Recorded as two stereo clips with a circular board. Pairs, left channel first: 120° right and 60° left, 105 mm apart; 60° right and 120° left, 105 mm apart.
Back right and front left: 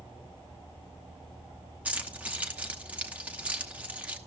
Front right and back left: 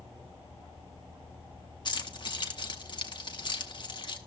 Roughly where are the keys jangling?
Ahead.